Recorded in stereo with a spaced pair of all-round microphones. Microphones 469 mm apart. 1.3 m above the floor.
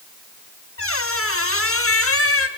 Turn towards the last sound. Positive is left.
turn(degrees=30)  # may be behind; listen again after turning